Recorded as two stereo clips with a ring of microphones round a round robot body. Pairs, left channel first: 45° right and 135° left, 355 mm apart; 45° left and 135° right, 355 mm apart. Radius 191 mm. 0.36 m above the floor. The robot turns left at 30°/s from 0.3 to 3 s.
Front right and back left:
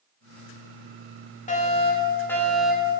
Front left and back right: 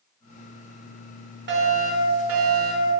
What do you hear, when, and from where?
1.5 s a fire alarm: 100° right, 2.5 m; by 3.0 s 145° right, 2.5 m